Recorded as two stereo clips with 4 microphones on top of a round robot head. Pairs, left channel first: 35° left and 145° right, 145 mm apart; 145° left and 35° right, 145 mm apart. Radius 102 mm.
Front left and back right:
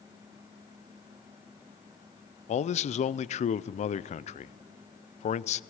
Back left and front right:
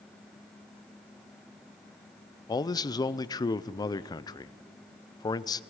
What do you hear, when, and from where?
2.5 s a man speaking: 80° left, 0.5 m